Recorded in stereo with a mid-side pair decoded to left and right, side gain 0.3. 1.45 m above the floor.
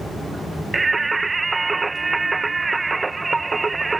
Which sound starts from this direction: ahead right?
Singing, at 0.7 s.